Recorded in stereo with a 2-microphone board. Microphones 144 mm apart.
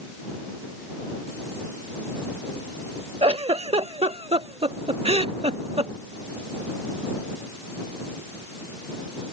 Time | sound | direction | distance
3.2 | a giggle | 45° right (ahead or behind) | ?